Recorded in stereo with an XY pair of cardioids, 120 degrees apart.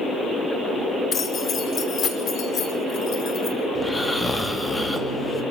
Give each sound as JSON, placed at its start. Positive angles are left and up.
{"t": 1.1, "sound": "keys jangling", "azimuth_deg": 45, "distance_m": 3.0}
{"t": 3.8, "sound": "snoring", "azimuth_deg": 10, "distance_m": 3.0}